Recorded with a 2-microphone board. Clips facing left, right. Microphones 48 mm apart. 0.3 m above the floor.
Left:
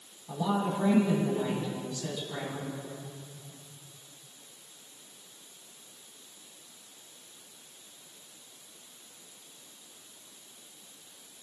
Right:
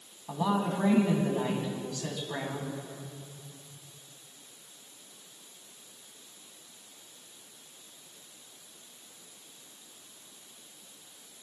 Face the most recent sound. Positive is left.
turn(degrees=-60)  # may be behind; listen again after turning